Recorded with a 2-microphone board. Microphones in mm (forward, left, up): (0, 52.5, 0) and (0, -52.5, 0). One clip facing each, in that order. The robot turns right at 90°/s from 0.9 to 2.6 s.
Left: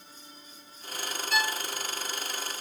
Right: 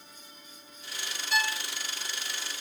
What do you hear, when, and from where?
1.3 s a violin: 5° right (ahead or behind), 0.9 m; by 1.6 s 20° left (ahead or behind), 0.9 m